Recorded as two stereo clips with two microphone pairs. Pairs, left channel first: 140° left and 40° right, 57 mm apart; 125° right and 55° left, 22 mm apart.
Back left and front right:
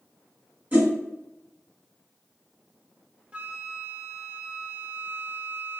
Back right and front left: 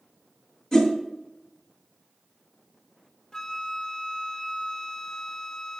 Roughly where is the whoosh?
Right.